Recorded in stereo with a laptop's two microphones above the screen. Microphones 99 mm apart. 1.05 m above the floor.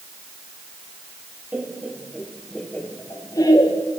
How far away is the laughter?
About 1.7 m.